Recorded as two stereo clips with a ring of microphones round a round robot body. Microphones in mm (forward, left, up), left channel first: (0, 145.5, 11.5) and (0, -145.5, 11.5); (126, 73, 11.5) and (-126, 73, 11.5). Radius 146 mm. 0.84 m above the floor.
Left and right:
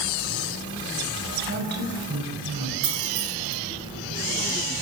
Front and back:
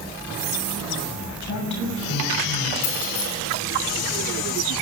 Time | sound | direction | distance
1.4 | a woman speaking | 35° right | 6 m
2.8 | keys jangling | 45° right | 8.5 m